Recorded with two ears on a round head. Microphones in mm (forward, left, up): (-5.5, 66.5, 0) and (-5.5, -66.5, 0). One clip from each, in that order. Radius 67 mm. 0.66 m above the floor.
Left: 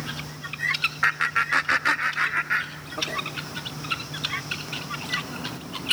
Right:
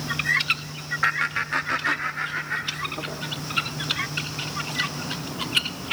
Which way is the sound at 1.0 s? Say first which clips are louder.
Even; 10° left (ahead or behind).